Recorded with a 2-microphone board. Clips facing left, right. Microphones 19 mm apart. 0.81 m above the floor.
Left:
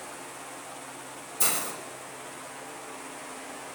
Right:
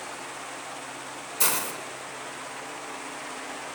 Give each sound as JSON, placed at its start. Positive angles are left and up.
{"t": 1.4, "sound": "a hiss", "side_deg": -50, "distance_m": 4.0}